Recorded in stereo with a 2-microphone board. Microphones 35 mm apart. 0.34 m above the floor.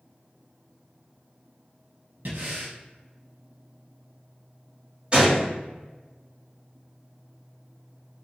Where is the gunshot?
30° right (ahead or behind), 2.0 m.